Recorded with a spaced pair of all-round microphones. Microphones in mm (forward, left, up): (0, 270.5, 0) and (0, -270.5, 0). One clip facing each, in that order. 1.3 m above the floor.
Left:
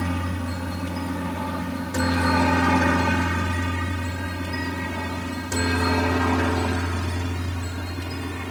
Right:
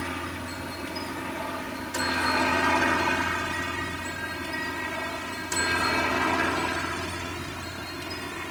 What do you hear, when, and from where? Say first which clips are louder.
0.0 s a helicopter: left 7 dB; 65° left (ahead or behind)